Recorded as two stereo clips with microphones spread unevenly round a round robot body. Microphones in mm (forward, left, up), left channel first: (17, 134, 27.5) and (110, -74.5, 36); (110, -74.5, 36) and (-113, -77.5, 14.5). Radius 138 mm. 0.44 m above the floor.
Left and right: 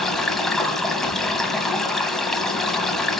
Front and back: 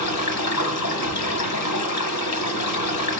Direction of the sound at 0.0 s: 25° left.